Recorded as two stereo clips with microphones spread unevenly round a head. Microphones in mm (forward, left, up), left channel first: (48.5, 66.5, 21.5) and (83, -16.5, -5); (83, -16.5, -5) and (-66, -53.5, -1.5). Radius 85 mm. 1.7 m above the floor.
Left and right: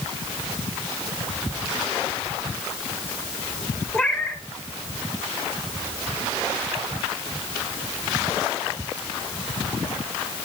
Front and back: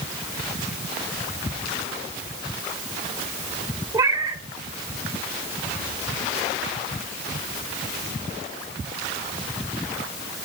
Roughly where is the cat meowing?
Behind left.